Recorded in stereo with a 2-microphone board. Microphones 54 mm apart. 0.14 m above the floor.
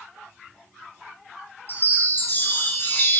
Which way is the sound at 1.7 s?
45° left (ahead or behind).